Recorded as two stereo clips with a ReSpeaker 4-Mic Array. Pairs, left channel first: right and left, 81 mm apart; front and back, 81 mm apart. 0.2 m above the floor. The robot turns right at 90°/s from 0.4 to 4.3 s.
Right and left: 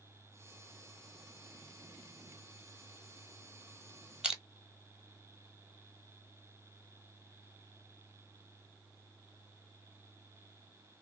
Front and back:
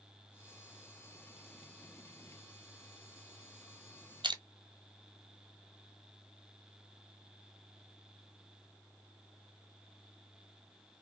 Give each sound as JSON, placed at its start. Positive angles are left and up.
{"t": 4.2, "sound": "crushing", "azimuth_deg": 170, "distance_m": 0.9}